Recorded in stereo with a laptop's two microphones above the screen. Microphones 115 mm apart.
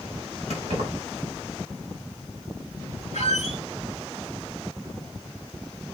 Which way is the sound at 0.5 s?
75° right (ahead or behind).